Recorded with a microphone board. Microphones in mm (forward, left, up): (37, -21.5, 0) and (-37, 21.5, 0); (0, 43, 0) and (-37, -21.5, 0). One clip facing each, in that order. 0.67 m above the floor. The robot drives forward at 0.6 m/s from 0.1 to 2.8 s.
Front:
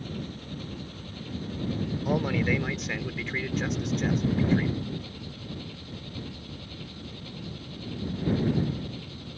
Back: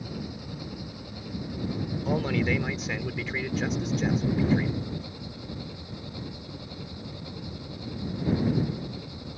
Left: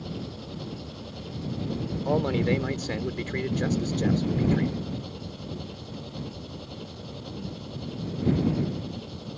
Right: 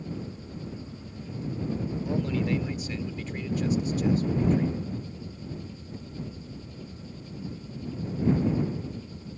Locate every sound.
0.0 s an engine running: 75° left; by 9.4 s 80° left
2.0 s a man speaking: 50° left; by 4.7 s 60° left